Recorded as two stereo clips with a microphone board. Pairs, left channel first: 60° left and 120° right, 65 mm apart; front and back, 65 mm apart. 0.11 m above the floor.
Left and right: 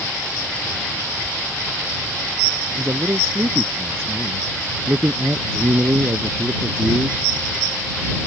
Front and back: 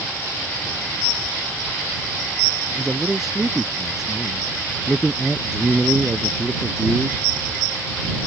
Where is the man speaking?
100° right.